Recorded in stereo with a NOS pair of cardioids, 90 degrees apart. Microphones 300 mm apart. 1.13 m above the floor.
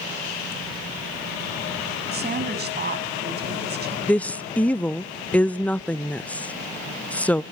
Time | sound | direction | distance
2.1 | a woman speaking | 35° right | 7 m
4.1 | a woman speaking | 5° left | 0.6 m